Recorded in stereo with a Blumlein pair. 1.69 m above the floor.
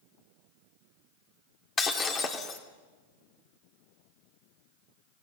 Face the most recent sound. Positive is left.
turn(degrees=25)